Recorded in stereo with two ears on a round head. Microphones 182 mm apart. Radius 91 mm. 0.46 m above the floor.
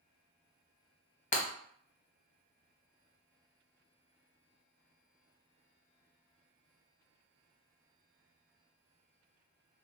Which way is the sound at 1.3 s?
35° left (ahead or behind).